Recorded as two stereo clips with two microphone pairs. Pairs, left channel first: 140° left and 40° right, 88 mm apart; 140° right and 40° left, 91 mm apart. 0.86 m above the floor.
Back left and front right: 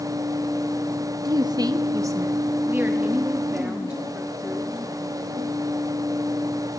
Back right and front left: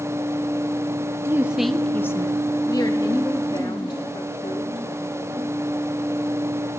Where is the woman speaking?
20° right, 0.6 m; by 5.5 s 120° right, 3 m.